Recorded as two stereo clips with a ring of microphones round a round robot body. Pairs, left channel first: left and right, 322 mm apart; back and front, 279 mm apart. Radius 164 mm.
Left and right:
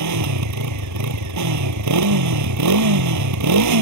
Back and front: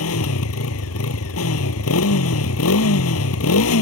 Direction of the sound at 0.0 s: 130° right.